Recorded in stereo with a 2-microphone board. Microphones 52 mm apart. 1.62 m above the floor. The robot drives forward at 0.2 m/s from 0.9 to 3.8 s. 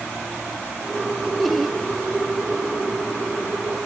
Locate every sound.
1.4 s laughter: centre (ahead or behind), 1.3 m